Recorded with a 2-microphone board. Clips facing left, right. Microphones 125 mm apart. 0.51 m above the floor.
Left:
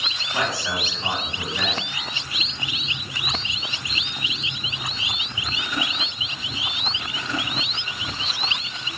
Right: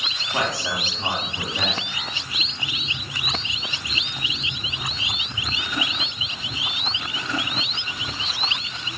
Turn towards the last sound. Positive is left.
turn(degrees=-20)  # may be behind; listen again after turning